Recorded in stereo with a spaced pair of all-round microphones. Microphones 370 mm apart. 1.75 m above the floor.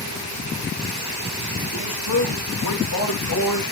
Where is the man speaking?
75° left (ahead or behind), 1.9 m; by 3.6 s 45° left (ahead or behind), 2 m.